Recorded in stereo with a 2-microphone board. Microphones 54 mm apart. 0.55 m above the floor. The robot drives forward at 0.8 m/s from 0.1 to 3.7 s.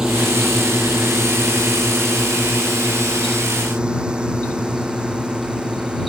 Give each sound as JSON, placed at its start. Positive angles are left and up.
{"t": 0.0, "sound": "a drone", "side_deg": -10}